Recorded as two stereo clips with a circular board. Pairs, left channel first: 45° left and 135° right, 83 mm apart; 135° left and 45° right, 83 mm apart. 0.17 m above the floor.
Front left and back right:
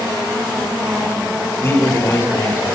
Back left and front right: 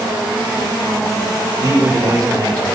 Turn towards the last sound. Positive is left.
turn(degrees=0)